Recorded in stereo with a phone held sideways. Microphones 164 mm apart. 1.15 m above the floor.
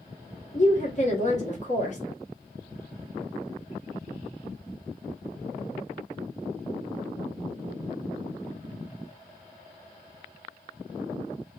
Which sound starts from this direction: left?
A woman speaking, at 0.5 s.